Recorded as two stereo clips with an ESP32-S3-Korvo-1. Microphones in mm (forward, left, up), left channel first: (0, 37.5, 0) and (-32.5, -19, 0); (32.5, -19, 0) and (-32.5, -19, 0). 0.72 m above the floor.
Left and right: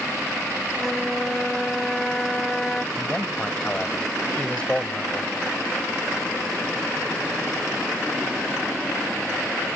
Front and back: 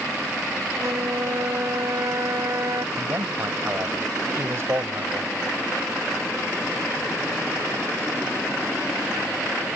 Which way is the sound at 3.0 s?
135° left.